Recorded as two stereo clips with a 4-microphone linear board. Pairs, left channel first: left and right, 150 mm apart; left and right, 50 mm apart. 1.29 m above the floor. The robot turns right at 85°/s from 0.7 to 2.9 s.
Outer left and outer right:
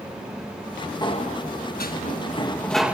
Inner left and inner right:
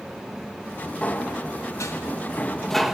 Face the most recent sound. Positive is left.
turn(degrees=-170)